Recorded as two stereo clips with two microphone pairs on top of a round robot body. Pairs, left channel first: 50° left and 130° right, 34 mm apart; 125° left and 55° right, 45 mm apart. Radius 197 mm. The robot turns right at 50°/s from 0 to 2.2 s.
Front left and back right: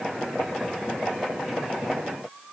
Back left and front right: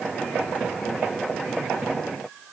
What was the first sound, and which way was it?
Only background noise.